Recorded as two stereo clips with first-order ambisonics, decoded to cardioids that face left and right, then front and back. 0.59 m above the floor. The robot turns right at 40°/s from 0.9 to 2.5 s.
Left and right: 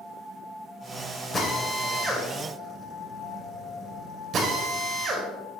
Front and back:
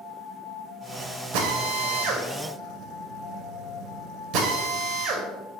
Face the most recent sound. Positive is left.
turn(degrees=-145)